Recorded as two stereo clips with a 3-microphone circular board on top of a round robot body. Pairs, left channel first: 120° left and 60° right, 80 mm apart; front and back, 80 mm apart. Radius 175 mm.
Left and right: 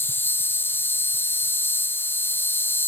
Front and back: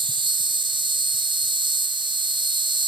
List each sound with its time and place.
0.0 s an insect: straight behind